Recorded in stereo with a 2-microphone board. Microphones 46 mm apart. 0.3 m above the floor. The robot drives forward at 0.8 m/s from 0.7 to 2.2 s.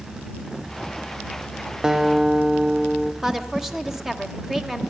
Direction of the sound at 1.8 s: 15° right (ahead or behind).